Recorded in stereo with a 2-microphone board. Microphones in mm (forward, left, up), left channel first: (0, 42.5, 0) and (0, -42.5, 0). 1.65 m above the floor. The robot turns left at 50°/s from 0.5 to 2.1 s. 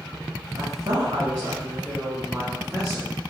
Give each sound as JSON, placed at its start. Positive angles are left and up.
{"t": 0.6, "sound": "a woman speaking", "azimuth_deg": -95, "distance_m": 1.8}